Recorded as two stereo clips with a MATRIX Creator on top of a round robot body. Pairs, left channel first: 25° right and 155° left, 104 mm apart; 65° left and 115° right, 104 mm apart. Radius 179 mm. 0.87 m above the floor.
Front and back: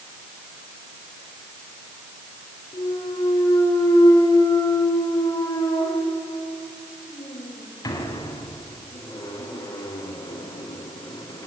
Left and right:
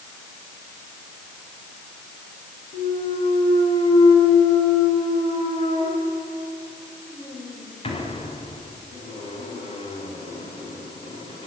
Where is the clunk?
35° left, 3.5 m.